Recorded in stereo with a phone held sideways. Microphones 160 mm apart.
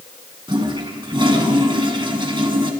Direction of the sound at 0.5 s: 30° right (ahead or behind).